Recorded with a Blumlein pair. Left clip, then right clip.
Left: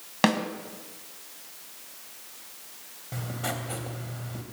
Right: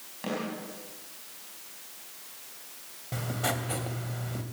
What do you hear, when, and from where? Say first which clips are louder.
0.2 s a snare drum: left 10 dB; 40° left, 3.5 m
3.1 s writing: right 2 dB; 10° right, 2.5 m